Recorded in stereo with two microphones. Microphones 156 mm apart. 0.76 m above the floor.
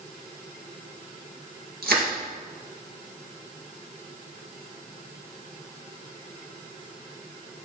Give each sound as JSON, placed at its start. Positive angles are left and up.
{"t": 1.8, "sound": "crushing", "side_deg": -85, "distance_m": 3.5}